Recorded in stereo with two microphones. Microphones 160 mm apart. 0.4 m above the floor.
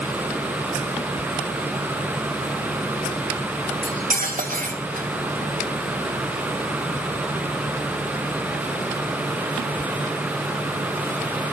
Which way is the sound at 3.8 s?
55° right (ahead or behind).